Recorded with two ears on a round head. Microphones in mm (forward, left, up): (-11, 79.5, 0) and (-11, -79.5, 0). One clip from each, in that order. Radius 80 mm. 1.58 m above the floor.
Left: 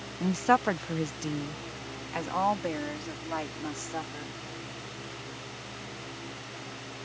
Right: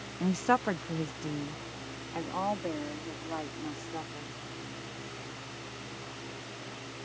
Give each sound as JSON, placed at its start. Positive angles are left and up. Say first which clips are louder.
{"t": 0.2, "sound": "a woman speaking", "louder": "left 3 dB", "side_deg": -5}